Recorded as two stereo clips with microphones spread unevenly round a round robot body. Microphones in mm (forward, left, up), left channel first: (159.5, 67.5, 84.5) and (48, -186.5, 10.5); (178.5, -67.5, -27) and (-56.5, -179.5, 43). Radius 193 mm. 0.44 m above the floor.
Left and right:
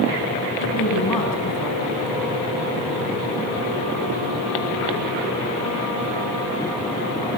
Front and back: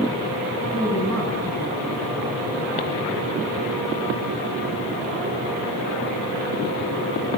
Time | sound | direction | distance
0.6 | a woman speaking | 110° left | 4 m